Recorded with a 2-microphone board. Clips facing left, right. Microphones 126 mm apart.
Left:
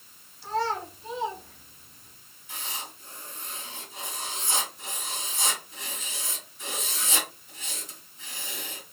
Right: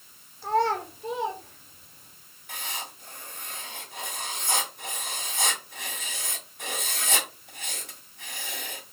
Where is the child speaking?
60° right (ahead or behind), 1.1 m; by 2.1 s 55° right (ahead or behind), 2.5 m.